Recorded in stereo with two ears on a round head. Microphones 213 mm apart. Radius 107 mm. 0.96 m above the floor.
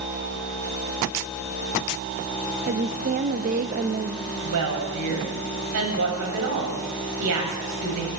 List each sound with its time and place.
2.7 s a woman speaking: 35° right (ahead or behind), 0.6 m
4.4 s a woman speaking: 75° right (ahead or behind), 5 m